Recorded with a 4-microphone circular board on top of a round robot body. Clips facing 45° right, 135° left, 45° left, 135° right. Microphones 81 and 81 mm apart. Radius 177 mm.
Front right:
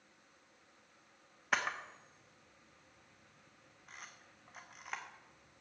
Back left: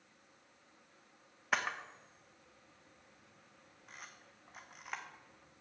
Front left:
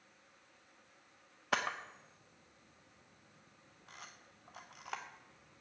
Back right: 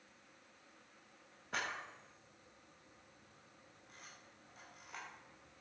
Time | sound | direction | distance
1.5 | a camera shutter | 45° left | 0.7 m